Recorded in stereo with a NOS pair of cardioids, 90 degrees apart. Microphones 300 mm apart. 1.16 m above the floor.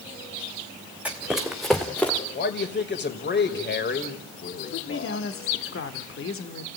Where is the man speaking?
35° left, 5 m.